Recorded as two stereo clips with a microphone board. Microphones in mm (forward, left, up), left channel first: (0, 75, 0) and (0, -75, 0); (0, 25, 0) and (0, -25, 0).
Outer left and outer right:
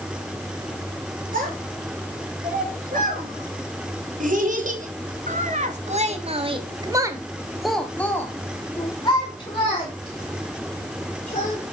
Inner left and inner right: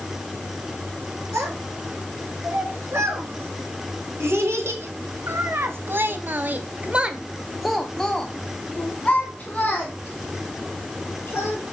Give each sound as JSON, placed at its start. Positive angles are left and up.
{"t": 1.3, "sound": "a child speaking", "side_deg": -65, "distance_m": 4.5}